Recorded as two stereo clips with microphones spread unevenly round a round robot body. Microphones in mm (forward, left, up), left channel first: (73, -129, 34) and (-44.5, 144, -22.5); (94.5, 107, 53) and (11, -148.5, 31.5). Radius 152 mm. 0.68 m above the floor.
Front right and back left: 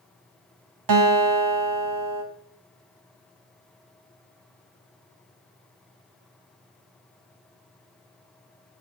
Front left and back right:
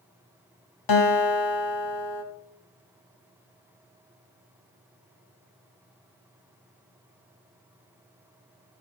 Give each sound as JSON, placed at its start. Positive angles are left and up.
{"t": 0.9, "sound": "a guitar", "azimuth_deg": 90, "distance_m": 1.8}